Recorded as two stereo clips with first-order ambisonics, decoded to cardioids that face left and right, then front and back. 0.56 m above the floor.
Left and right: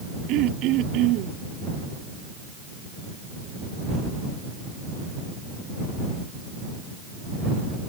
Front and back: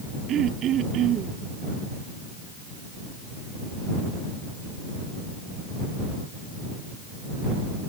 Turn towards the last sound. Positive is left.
turn(degrees=-125)